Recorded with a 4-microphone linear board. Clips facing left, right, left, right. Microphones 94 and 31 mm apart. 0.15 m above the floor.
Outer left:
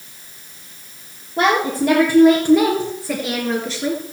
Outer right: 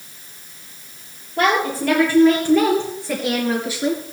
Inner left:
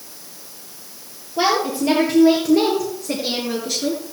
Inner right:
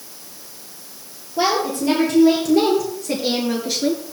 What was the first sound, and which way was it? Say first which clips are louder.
A woman speaking: outer left 2 dB, inner left 1 dB; 25° left (ahead or behind).